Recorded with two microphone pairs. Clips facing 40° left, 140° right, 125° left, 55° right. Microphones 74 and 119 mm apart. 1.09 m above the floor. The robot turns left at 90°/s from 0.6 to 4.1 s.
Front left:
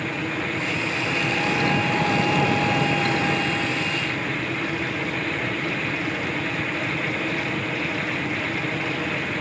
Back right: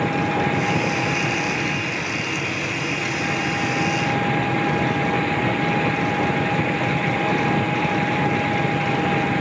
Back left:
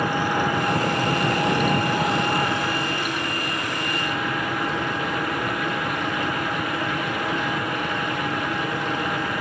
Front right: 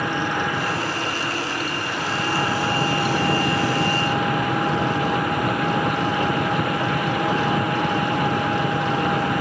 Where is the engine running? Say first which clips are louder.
Back right 6 dB, back left 1 dB; 155° right; by 9.4 s 110° right.